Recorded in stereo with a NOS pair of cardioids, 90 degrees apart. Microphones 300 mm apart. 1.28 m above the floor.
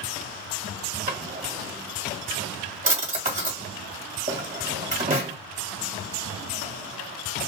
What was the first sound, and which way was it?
A drawer, 25° right.